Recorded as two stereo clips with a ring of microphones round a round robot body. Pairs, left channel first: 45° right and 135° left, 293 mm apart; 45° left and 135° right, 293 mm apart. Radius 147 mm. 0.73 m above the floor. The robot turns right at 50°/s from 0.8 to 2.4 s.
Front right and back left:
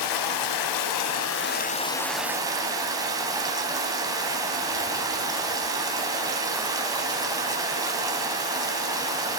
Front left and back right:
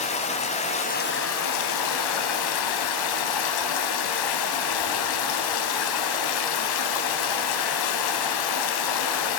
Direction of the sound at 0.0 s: 25° right.